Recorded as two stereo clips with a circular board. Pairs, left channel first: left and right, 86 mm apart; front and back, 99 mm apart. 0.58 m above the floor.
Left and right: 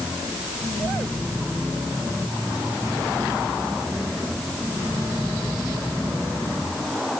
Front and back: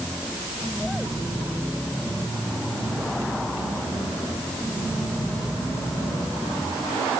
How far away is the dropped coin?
I don't hear a dropped coin.